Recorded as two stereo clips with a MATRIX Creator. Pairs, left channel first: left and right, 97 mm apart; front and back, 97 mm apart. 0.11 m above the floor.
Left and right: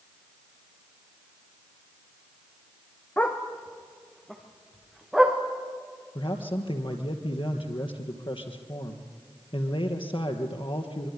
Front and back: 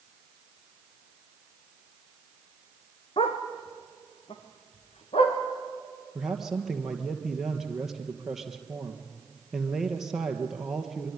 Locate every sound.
3.2 s a dog barking: 20° left, 2.5 m; by 5.4 s straight ahead, 4.5 m
6.2 s a man speaking: 95° left, 2.5 m